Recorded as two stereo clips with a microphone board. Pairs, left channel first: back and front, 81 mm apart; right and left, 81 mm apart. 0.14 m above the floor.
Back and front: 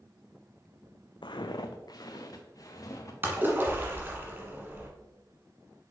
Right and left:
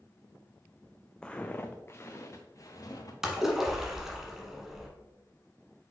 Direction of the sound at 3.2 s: 10° left.